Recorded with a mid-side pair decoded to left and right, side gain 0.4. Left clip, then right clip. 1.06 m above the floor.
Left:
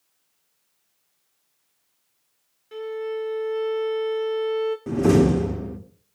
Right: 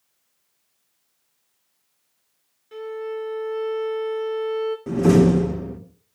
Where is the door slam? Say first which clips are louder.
Right 2 dB; 5° left, 2.5 m.